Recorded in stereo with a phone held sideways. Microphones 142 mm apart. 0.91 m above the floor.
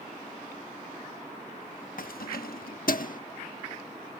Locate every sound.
2.0 s keys jangling: 70° left (ahead or behind); by 3.2 s 65° left (ahead or behind)